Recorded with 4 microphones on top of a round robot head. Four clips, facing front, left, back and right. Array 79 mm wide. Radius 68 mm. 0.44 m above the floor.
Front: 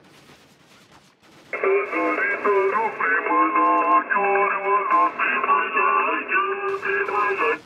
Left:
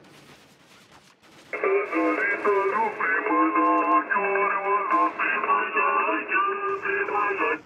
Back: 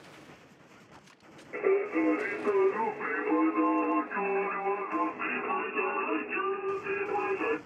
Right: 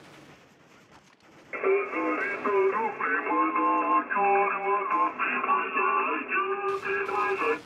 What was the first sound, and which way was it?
Singing, 30° left.